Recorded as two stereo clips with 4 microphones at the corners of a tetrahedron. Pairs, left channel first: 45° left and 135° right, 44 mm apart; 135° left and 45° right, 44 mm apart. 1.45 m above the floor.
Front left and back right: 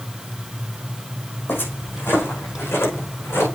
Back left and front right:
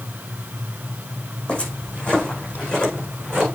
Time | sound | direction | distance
1.5 | footsteps | 75° left | 4 m